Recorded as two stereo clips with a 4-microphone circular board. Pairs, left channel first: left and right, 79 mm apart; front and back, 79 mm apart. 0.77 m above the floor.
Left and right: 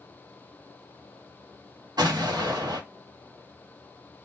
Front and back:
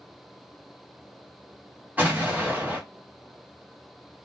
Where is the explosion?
115° right, 0.8 m.